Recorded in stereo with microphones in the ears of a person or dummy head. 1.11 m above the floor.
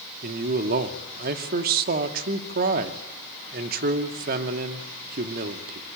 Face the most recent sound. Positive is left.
turn(degrees=-55)  # may be behind; listen again after turning